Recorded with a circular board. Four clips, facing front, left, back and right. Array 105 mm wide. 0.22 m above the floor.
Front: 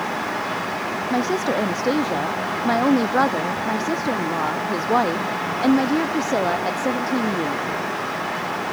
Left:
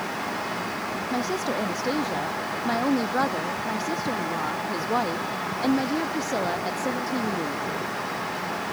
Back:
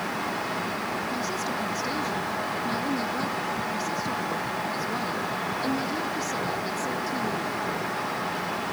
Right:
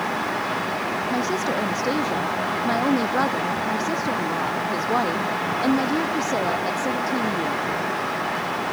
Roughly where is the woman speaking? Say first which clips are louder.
Right 2 dB, front 9 dB; ahead.